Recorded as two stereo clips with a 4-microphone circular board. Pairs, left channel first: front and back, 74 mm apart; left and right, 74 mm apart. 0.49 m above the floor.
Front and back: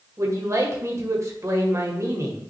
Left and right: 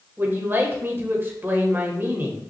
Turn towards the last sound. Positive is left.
turn(degrees=-145)